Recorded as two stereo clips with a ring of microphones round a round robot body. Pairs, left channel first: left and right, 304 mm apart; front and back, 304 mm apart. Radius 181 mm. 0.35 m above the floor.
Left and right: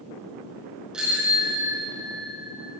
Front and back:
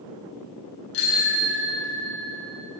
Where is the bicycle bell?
Straight ahead, 3.5 m; by 2.3 s 10° right, 4.5 m.